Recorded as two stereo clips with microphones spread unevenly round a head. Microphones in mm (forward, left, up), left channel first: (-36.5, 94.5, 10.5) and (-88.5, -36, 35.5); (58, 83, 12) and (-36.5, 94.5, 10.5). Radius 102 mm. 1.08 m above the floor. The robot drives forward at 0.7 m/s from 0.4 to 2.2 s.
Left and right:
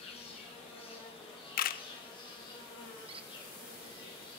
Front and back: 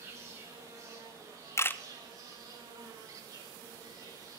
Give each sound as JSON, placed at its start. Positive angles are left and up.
{"t": 0.0, "sound": "an insect", "azimuth_deg": 115, "distance_m": 6.0}
{"t": 1.6, "sound": "a camera shutter", "azimuth_deg": 50, "distance_m": 0.6}
{"t": 3.1, "sound": "a squeak", "azimuth_deg": -130, "distance_m": 1.0}